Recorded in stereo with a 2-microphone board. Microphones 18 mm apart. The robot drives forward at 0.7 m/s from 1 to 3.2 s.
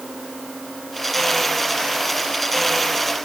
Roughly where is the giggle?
I don't hear a giggle.